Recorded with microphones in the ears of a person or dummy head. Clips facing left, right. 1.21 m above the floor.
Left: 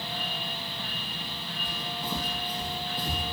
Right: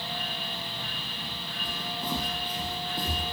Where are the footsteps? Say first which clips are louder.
Right 2 dB; 50° right (ahead or behind), 2.5 m; by 3.3 s 55° right (ahead or behind), 2 m.